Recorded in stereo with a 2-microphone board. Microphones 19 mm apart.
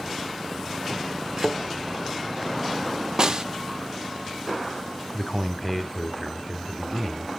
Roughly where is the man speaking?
Centre.